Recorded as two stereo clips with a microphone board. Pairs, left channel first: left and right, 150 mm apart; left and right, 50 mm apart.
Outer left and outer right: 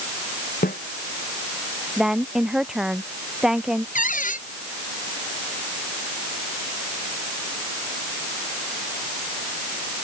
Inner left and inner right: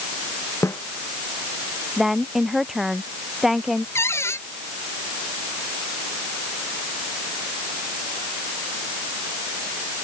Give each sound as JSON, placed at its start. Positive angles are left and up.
{"t": 0.6, "sound": "a snare drum", "side_deg": 85}
{"t": 2.0, "sound": "a woman speaking", "side_deg": -5}
{"t": 4.0, "sound": "a cupboard door", "side_deg": 65}